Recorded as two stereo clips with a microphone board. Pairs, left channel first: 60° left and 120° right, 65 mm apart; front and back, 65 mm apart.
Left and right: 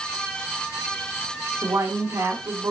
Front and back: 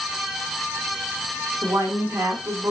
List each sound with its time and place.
1.6 s a woman speaking: 145° right, 2.0 m